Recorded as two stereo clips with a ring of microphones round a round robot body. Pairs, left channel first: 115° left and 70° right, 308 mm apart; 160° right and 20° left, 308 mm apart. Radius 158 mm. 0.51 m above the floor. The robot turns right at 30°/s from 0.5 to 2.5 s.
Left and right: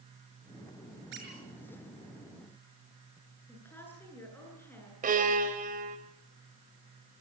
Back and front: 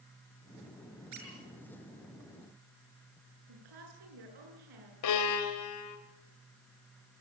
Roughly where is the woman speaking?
Ahead left.